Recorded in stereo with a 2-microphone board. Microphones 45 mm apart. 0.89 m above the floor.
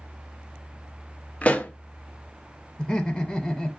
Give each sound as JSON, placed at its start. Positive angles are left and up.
{"t": 1.4, "sound": "a pop", "side_deg": 30, "distance_m": 0.5}
{"t": 2.8, "sound": "laughter", "side_deg": 30, "distance_m": 0.5}